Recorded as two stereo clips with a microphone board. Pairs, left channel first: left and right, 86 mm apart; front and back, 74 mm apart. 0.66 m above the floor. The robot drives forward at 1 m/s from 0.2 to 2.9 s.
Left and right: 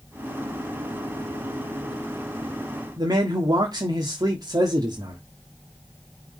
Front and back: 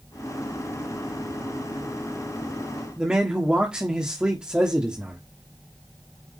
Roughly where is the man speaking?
Right.